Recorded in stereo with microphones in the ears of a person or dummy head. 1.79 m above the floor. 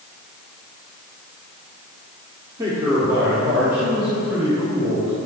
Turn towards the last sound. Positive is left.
turn(degrees=-10)  # may be behind; listen again after turning